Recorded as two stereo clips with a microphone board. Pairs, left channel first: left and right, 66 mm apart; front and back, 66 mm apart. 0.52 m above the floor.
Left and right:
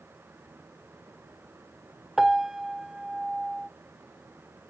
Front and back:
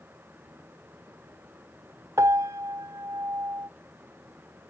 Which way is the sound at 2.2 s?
170° right.